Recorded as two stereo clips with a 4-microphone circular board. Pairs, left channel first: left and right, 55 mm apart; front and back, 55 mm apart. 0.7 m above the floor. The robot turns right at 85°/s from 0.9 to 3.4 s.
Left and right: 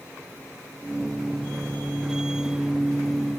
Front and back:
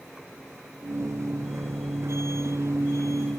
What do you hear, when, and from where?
Only background noise.